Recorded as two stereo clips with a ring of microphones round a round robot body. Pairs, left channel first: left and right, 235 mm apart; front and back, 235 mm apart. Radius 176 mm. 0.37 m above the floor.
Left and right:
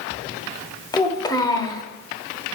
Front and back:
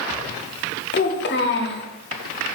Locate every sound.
0.9 s a child speaking: 20° left, 1.0 m